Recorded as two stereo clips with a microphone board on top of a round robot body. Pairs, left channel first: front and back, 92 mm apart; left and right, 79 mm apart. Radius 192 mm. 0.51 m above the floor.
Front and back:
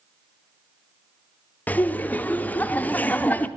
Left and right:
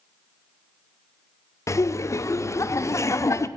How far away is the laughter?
About 0.7 m.